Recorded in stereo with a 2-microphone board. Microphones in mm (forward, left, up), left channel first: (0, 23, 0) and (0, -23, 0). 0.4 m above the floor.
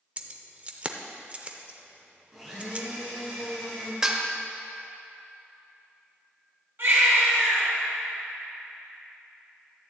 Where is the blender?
5° right (ahead or behind), 3 m.